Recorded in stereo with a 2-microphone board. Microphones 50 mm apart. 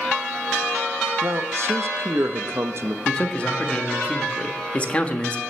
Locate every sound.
1.2 s a man speaking: 65° right (ahead or behind), 0.8 m
3.0 s a man speaking: 25° left (ahead or behind), 1.3 m